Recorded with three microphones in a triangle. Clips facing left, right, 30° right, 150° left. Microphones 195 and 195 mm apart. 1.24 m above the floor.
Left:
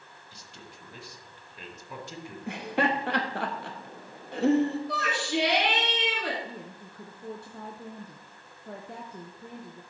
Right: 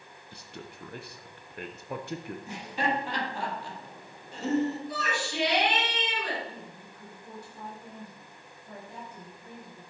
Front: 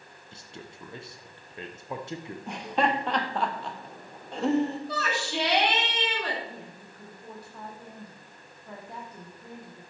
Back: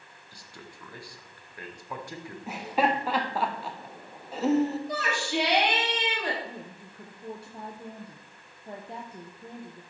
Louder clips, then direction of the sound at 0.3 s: Right 6 dB, front 3 dB; 95° right.